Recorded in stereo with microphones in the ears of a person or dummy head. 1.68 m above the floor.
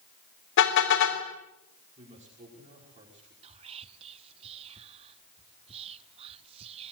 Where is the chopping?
I don't hear chopping.